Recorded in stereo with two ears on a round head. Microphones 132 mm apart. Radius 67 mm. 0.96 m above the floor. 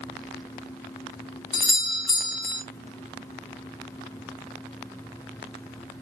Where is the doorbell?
30° left (ahead or behind), 0.9 m.